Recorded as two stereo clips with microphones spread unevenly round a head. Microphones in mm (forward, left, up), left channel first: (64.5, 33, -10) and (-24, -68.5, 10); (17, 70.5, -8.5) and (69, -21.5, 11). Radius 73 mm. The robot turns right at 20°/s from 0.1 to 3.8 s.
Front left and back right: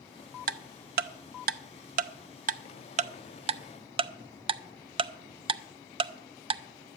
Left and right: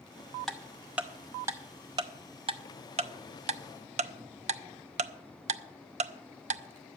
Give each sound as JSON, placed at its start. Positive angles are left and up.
{"t": 0.5, "sound": "ticking", "azimuth_deg": -150, "distance_m": 0.6}